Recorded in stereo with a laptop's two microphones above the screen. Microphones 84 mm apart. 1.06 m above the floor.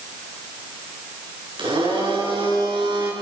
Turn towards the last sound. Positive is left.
turn(degrees=-85)